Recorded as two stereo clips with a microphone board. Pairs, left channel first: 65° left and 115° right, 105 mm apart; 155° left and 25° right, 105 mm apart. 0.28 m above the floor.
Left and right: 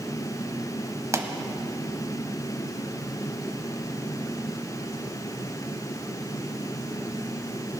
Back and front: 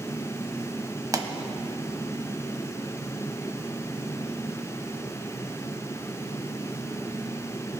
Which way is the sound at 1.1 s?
65° right.